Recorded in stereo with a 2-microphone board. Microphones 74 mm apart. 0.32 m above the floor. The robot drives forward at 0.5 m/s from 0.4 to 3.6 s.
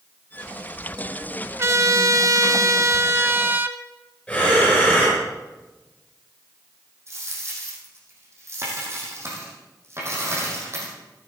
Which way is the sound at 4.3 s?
15° left (ahead or behind).